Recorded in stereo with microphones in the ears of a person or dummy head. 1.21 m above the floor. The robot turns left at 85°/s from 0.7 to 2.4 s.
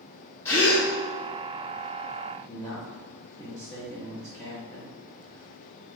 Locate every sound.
0.5 s a gasp: 15° left (ahead or behind), 1.1 m; by 0.9 s centre (ahead or behind), 1.1 m
2.3 s a man speaking: 25° left (ahead or behind), 1.0 m; by 4.9 s 15° left (ahead or behind), 1.0 m